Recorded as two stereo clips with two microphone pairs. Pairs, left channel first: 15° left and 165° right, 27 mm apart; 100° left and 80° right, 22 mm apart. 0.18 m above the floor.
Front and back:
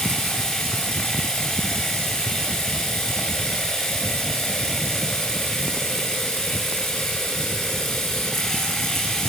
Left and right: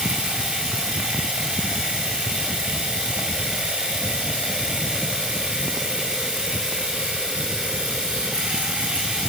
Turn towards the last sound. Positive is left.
turn(degrees=-65)